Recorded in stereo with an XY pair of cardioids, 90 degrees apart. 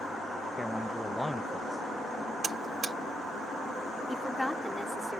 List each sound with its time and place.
0.6 s a man speaking: 5° left
2.4 s a buzzer: 40° right
4.1 s a woman speaking: 10° left